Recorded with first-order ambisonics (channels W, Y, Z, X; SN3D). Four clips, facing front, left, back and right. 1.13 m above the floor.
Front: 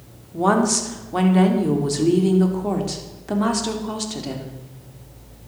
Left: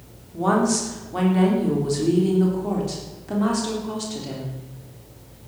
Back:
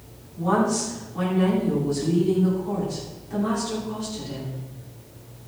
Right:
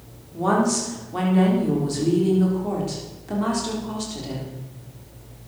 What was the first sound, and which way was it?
A woman speaking, straight ahead.